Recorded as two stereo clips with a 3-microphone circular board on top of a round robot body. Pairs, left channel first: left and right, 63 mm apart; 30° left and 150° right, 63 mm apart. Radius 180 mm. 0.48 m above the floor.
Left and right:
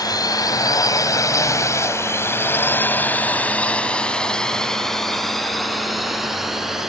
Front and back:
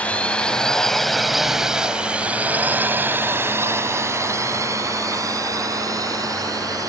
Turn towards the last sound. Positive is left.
turn(degrees=-175)